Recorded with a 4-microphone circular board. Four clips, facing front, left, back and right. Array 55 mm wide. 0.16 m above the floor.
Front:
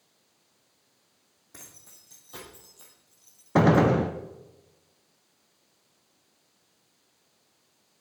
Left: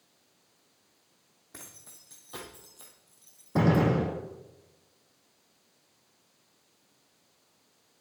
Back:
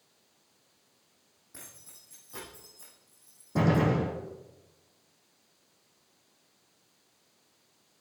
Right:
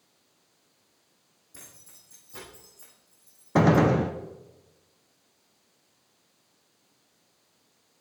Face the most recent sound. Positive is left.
turn(degrees=-30)